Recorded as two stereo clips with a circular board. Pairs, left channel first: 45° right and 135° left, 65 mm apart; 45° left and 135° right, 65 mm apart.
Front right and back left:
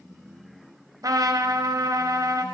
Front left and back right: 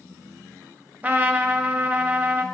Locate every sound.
1.0 s a trumpet: 160° left, 0.5 m